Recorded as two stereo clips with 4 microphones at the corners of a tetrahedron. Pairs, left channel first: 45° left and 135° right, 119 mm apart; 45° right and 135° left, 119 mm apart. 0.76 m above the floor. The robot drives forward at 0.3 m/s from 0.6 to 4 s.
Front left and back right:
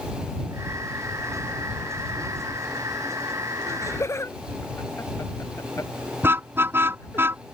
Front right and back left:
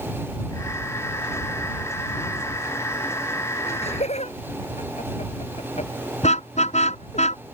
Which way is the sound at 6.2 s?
65° right.